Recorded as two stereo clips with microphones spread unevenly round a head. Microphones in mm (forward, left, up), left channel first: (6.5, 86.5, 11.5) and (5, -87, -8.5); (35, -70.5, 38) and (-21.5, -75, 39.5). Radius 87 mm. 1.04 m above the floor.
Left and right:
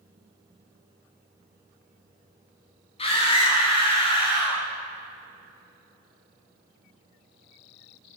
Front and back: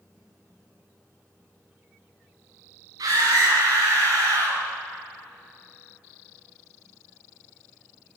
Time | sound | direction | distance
3.0 | a scream | 150° left | 9 m